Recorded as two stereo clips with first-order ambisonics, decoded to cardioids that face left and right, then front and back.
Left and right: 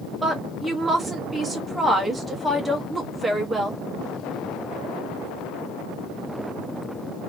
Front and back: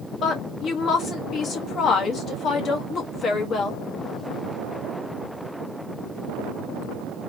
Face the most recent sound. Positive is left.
turn(degrees=-15)